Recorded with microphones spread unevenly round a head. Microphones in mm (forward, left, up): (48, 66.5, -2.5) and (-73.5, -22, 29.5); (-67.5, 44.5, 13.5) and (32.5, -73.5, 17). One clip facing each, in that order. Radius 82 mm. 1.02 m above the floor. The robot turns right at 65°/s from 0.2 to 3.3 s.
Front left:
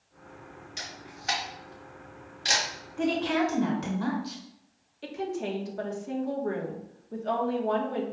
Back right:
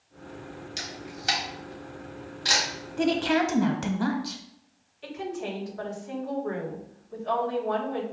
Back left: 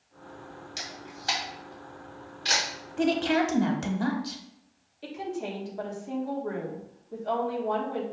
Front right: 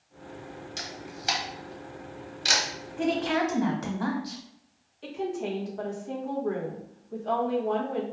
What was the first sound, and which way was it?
A camera shutter, 145° right.